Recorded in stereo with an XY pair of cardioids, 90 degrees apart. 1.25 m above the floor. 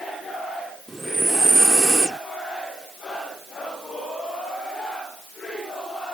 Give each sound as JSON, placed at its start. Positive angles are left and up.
{"t": 0.9, "sound": "breathing", "azimuth_deg": -20}